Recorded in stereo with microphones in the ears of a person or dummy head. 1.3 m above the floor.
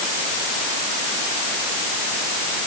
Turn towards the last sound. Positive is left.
No sound to turn to.